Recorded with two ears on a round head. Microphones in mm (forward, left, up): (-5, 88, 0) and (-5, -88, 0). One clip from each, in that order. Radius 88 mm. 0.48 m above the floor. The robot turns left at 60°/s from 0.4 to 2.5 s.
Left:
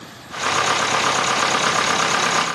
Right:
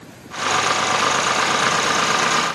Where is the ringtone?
No ringtone in this recording.